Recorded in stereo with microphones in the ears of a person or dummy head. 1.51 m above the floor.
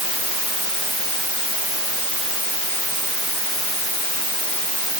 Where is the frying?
I don't hear frying.